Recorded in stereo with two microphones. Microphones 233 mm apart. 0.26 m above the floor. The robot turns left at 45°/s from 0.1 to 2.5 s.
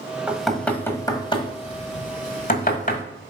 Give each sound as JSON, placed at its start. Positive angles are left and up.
{"t": 0.3, "sound": "knocking", "side_deg": -5, "distance_m": 1.3}